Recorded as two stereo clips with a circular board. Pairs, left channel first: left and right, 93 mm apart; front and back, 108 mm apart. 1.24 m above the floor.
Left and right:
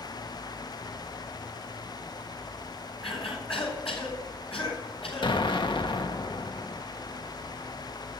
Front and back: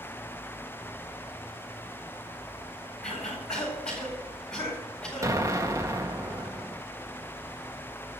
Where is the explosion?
120° left, 1.3 m.